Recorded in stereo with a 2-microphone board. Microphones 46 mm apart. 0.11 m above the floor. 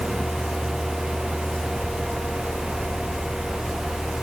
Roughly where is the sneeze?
No sneeze in this recording.